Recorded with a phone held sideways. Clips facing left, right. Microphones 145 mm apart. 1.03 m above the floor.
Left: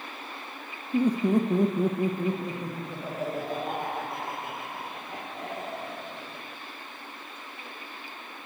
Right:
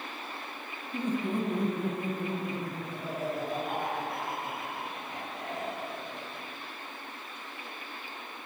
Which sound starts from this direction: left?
Laughter, at 0.9 s.